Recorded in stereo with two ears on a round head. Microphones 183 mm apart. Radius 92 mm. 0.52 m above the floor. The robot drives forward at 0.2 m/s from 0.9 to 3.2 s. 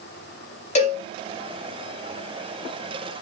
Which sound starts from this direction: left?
A cowbell, at 0.8 s.